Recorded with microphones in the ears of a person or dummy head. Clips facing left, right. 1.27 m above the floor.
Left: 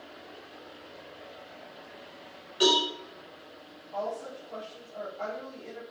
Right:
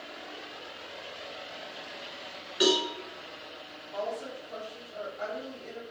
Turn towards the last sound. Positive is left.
turn(degrees=-10)  # may be behind; listen again after turning